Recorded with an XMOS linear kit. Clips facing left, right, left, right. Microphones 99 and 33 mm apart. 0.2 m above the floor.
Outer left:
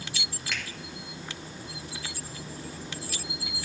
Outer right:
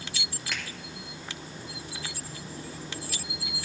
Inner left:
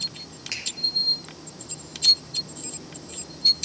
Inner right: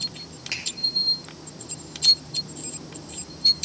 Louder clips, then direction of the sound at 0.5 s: Outer left 1 dB, inner right 2 dB; 5° right (ahead or behind).